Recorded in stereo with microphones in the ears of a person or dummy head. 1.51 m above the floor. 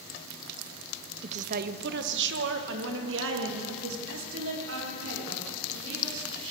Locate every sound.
1.2 s a woman speaking: 35° right (ahead or behind), 0.6 m; by 6.5 s 80° right, 5.5 m